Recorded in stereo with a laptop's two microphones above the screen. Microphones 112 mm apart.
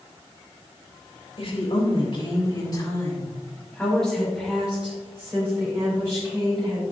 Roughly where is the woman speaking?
Left.